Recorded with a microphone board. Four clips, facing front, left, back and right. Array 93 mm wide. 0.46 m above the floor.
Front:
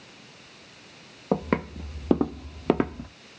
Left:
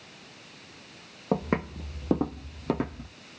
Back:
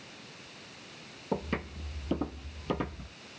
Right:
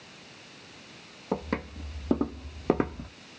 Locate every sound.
1.3 s footsteps: 30° left, 1.2 m; by 3.1 s 35° right, 0.9 m